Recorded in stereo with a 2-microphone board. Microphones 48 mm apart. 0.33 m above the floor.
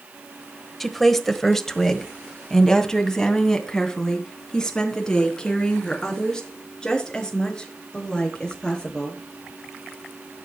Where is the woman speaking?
Centre (ahead or behind), 1.2 m; by 9.2 s 15° left (ahead or behind), 5.5 m.